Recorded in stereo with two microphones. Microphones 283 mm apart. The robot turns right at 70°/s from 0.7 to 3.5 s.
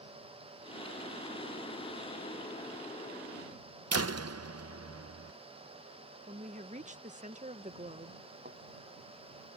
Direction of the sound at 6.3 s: 25° right (ahead or behind).